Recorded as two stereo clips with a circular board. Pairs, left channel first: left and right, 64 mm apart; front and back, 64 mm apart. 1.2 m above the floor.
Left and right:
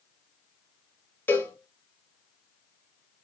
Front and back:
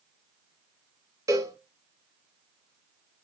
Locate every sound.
1.3 s a cowbell: 150° left, 1.2 m